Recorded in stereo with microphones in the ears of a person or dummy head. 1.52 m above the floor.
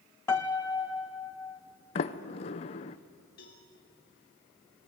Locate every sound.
0.3 s a piano: 15° left (ahead or behind), 0.7 m
1.9 s a sliding door: 40° left (ahead or behind), 0.7 m
3.4 s a cowbell: 60° left (ahead or behind), 2.5 m